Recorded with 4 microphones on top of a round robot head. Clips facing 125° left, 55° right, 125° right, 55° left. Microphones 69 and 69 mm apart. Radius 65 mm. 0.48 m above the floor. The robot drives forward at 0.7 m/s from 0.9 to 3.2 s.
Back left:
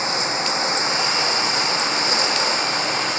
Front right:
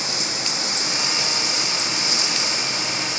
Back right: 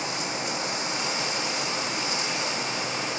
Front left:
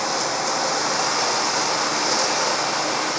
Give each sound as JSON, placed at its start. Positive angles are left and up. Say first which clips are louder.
{"t": 0.0, "sound": "running water", "louder": "back left 6 dB, front left 7 dB", "azimuth_deg": 70}